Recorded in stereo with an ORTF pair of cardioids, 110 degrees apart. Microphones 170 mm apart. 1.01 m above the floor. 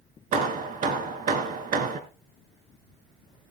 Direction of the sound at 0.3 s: 55° right.